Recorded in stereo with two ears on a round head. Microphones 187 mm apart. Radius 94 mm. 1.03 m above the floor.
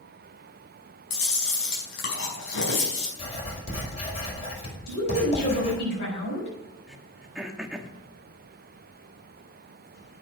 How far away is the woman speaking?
About 6 m.